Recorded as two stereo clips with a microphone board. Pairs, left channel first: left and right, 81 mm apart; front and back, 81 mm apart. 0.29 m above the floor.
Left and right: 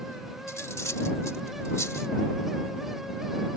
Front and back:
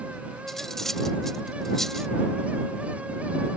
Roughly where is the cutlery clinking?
Left.